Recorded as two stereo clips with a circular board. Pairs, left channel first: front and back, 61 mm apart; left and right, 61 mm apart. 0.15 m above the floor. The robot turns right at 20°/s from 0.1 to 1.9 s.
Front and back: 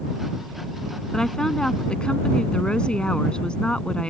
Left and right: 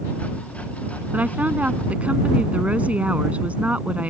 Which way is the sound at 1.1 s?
70° right.